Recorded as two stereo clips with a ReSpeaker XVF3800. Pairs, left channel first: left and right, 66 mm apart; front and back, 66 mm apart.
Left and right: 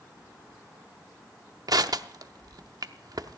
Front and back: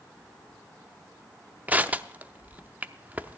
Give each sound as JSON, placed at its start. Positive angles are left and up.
{"t": 1.7, "sound": "crushing", "azimuth_deg": -110, "distance_m": 0.5}